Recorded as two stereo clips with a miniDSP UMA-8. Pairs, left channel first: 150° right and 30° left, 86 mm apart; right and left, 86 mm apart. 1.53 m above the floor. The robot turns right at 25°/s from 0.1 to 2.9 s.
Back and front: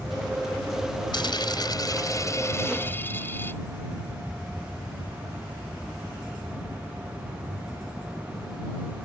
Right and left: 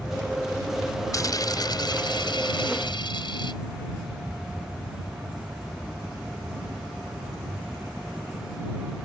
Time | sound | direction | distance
1.1 | a dropped coin | 130° right | ?